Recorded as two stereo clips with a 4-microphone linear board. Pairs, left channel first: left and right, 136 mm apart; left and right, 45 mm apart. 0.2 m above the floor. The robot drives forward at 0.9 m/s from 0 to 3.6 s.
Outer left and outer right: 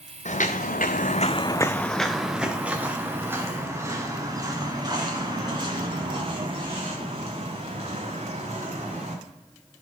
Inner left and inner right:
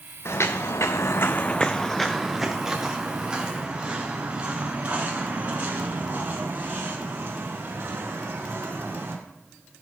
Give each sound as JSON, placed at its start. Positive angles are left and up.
{"t": 0.2, "sound": "footsteps", "side_deg": 60, "distance_m": 1.3}